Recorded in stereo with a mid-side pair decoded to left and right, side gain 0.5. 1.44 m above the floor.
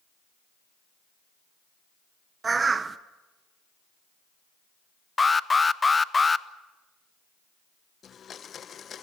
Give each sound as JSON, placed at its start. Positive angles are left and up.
{"t": 2.4, "sound": "a bird", "azimuth_deg": -30, "distance_m": 1.1}
{"t": 5.2, "sound": "an alarm", "azimuth_deg": 25, "distance_m": 0.8}
{"t": 8.0, "sound": "a blender", "azimuth_deg": 45, "distance_m": 0.9}